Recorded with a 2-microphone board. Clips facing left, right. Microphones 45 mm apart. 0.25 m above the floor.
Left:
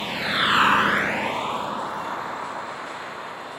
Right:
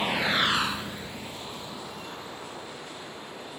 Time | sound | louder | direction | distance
0.0 | a vehicle | left 2 dB | 15° right (ahead or behind) | ?